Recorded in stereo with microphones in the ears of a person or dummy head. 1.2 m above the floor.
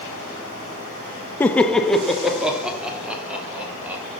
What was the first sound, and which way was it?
Laughter, 10° left (ahead or behind).